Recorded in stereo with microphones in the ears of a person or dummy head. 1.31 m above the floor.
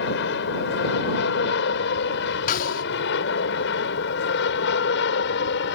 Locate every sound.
0.0 s an aircraft: 70° left (ahead or behind)
2.5 s a snare drum: 40° left (ahead or behind)